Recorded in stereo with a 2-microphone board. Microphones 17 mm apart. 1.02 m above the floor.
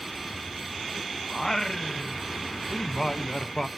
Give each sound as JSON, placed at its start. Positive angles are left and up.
{"t": 1.3, "sound": "singing", "side_deg": 20, "distance_m": 0.6}